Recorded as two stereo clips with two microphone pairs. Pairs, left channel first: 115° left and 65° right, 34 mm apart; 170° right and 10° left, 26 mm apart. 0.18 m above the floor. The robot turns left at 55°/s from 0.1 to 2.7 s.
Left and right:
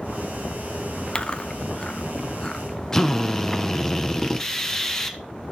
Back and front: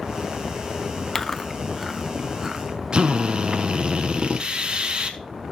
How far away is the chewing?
About 0.7 m.